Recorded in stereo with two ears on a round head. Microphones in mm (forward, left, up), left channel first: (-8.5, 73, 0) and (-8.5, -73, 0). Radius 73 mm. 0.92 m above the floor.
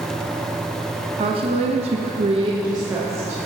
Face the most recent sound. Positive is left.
turn(degrees=-15)  # may be behind; listen again after turning